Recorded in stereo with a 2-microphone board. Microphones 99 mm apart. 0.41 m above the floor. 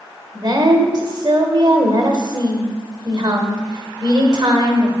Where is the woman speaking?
50° right (ahead or behind), 1.1 m.